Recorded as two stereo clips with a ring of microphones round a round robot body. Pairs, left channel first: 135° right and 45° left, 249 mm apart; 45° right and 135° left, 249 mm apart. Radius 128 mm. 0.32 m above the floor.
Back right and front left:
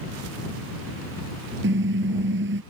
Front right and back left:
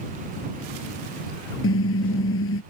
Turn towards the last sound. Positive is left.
turn(degrees=-5)